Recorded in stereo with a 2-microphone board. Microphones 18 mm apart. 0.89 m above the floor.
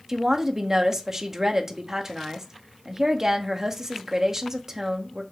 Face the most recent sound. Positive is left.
turn(degrees=-25)  # may be behind; listen again after turning